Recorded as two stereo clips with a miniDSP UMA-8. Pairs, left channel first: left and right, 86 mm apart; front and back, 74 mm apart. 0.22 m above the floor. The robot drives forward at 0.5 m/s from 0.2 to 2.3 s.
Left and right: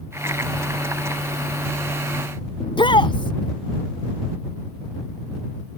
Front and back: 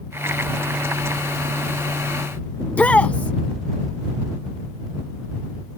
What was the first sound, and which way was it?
A shout, 70° left.